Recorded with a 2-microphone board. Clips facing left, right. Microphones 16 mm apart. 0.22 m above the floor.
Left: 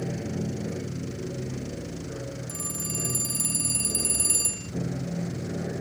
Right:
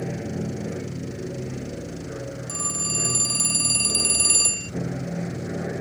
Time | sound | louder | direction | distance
0.0 | an aircraft | right 2 dB | 15° right (ahead or behind) | ?
2.5 | a phone ringing | right 9 dB | 35° right (ahead or behind) | ?